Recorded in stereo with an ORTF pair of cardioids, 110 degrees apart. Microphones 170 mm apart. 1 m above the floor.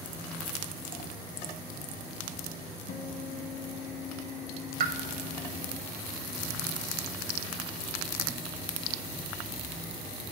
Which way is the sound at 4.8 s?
70° right.